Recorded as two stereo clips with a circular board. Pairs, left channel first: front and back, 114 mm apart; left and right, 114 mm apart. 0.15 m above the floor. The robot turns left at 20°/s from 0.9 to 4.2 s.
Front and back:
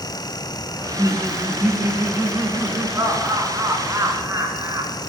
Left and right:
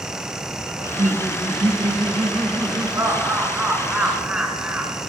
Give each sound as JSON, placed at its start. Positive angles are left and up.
{"t": 0.8, "sound": "laughter", "azimuth_deg": -90, "distance_m": 1.7}